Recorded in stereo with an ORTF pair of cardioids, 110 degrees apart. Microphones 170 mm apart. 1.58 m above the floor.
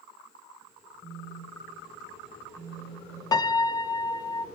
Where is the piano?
20° left, 0.5 m.